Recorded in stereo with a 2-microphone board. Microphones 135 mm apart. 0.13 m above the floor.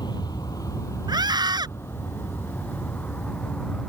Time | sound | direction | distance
0.0 | an aircraft | 30° left (ahead or behind) | ?
1.1 | a scream | 35° right (ahead or behind) | ?